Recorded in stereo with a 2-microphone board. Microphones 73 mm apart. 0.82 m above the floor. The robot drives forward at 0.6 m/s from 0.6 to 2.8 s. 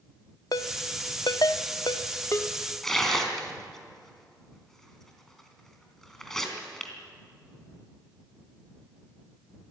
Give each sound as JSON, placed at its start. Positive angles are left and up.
{"t": 0.5, "sound": "a ringtone", "side_deg": 60, "distance_m": 0.7}
{"t": 2.8, "sound": "tearing paper", "side_deg": 5, "distance_m": 3.5}